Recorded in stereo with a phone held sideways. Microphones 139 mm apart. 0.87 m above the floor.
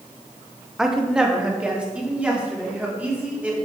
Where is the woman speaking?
5° right (ahead or behind), 1.1 m; by 3.5 s 10° right (ahead or behind), 3 m.